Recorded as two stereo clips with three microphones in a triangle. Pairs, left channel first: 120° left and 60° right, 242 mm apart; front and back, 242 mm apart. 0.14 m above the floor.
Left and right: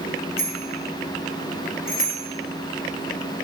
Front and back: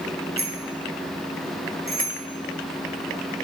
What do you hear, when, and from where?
0.4 s a bicycle bell: 155° left, 5 m